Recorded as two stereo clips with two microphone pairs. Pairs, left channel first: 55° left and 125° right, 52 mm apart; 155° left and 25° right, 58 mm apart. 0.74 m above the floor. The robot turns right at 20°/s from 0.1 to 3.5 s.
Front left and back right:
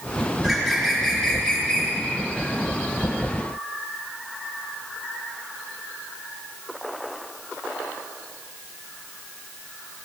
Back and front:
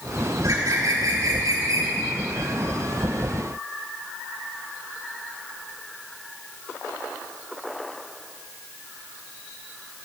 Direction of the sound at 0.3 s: 45° right.